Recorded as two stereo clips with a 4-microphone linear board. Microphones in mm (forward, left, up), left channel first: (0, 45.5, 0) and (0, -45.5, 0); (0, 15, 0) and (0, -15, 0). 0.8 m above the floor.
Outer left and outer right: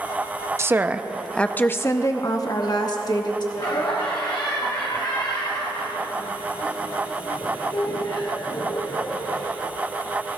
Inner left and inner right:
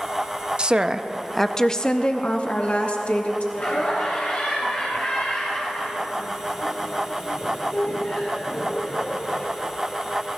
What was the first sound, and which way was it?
A woman speaking, 30° right (ahead or behind).